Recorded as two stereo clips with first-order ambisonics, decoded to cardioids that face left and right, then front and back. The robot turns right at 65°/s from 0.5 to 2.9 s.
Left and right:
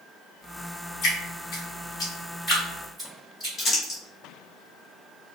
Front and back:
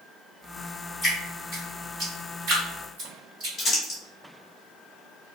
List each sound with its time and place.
1.0 s dripping: 75° left, 1.9 m; by 3.5 s 165° right, 1.9 m
3.6 s crumpling: 55° left, 1.2 m